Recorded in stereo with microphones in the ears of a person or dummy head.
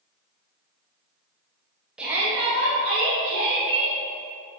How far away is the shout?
About 1.5 m.